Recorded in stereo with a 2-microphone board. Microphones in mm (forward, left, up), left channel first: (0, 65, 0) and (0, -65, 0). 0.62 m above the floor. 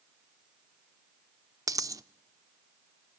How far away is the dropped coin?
About 0.6 m.